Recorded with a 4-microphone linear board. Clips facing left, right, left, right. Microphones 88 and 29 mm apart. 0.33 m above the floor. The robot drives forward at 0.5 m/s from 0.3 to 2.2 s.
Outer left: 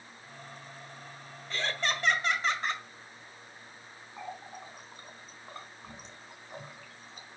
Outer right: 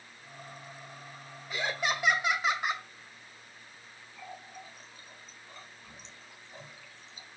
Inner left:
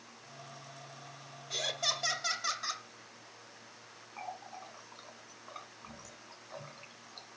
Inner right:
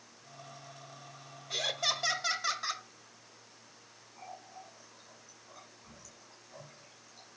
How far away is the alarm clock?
No alarm clock in this recording.